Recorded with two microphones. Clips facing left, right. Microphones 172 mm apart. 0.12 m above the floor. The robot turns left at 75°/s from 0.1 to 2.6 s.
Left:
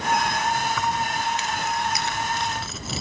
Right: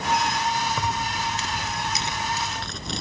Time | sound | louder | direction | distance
0.7 | keys jangling | left 2 dB | 45° right | ?